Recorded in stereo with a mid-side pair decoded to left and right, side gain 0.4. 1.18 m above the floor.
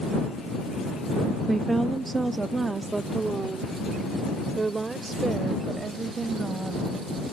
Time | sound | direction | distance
1.5 | a woman speaking | 15° right | ?